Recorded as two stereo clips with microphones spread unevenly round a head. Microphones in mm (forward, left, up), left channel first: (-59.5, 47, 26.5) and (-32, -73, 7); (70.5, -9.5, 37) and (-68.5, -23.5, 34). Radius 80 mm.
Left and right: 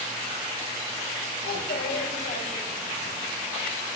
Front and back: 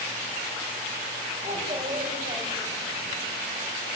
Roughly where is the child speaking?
Left.